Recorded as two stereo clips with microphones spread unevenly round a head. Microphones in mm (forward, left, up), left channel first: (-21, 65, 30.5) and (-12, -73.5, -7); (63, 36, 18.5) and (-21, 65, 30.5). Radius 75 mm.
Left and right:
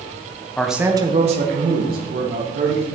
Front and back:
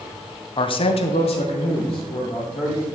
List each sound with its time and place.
0.6 s a man speaking: 10° left, 1.0 m; by 2.9 s 70° right, 3 m